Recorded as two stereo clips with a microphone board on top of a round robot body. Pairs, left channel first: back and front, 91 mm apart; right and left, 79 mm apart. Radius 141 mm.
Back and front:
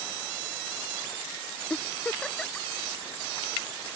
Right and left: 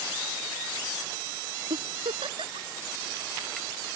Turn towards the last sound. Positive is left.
turn(degrees=100)